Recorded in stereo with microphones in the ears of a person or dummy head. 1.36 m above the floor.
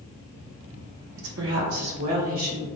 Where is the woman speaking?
55° right (ahead or behind), 0.6 m; by 2.7 s 80° right, 1.9 m.